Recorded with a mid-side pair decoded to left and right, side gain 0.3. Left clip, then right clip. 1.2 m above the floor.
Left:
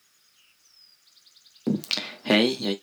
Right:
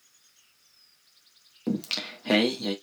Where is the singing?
45° left, 1.2 m.